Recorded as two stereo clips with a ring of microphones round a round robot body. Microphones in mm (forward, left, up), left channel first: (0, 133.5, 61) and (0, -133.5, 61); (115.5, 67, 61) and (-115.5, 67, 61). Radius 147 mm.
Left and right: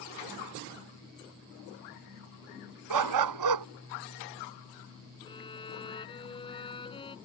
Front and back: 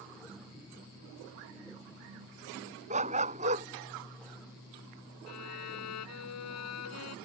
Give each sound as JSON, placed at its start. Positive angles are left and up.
{"t": 2.9, "sound": "a dog barking", "azimuth_deg": -110}
{"t": 5.3, "sound": "a violin", "azimuth_deg": 15}